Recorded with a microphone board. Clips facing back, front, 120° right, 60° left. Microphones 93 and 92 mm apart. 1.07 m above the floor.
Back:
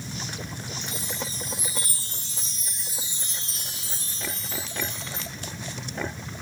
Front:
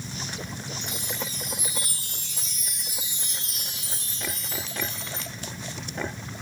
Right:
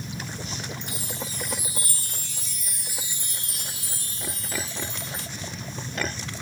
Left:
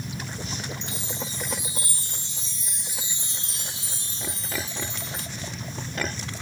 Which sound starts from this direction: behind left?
A chime, at 0.8 s.